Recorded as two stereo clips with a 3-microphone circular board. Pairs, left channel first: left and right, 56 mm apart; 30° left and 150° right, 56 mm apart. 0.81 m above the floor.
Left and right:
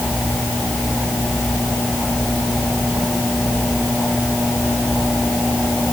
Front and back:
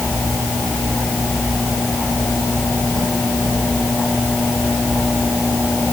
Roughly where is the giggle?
No giggle in this recording.